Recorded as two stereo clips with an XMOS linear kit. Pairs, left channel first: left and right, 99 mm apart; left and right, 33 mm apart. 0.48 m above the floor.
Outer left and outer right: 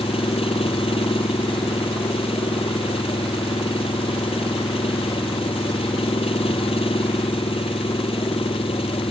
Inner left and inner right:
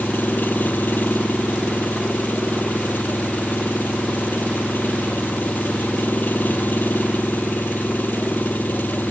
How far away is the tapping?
No tapping in this recording.